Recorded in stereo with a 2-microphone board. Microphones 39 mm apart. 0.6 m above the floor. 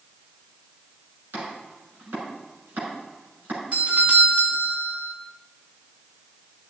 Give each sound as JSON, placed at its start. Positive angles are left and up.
{"t": 1.3, "sound": "chopping", "side_deg": -65, "distance_m": 6.5}
{"t": 3.7, "sound": "a doorbell", "side_deg": -40, "distance_m": 1.8}